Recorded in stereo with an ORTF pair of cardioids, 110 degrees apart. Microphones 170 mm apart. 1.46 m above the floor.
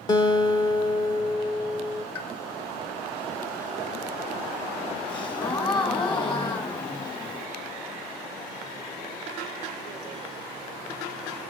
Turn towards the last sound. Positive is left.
turn(degrees=25)